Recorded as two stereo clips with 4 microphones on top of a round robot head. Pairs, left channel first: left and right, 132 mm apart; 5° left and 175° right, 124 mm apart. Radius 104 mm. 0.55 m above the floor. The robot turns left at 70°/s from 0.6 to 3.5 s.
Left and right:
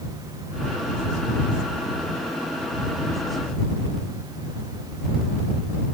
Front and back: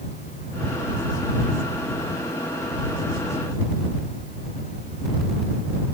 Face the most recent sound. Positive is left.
No sound to turn to.